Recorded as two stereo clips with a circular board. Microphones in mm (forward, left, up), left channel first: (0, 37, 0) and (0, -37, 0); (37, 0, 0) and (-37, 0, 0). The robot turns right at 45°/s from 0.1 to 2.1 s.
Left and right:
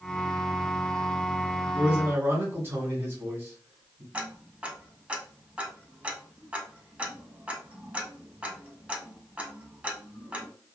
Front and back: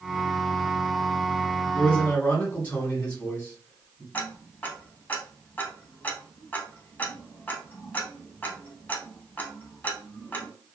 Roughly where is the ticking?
Ahead right.